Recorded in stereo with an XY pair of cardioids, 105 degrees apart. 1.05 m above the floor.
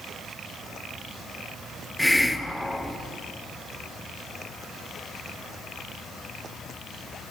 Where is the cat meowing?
No cat meowing in this recording.